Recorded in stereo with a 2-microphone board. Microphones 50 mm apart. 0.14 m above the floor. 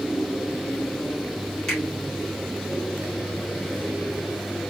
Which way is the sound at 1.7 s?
15° left (ahead or behind).